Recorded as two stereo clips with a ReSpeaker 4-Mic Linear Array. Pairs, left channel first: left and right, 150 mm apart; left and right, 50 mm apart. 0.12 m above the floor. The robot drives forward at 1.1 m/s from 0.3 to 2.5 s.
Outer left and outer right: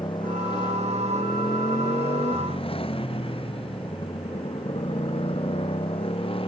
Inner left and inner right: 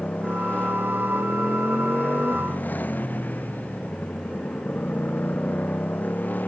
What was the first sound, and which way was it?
A motorcycle, 35° left (ahead or behind).